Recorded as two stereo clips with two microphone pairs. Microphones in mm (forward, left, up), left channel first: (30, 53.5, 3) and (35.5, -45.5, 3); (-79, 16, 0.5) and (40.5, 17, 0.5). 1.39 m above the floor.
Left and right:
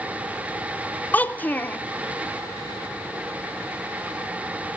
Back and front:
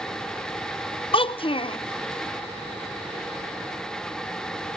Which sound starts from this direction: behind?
A child speaking, at 1.1 s.